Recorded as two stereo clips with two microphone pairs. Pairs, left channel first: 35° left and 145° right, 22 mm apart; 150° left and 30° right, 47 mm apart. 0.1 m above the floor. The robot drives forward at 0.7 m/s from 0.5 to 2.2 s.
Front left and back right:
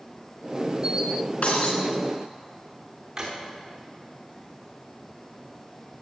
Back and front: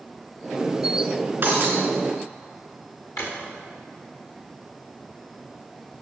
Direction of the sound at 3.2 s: 145° left.